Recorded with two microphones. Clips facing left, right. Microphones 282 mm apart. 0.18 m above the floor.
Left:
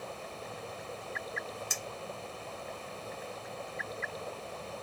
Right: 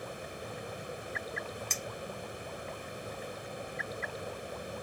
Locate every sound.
1.7 s a clink: 10° left (ahead or behind), 0.6 m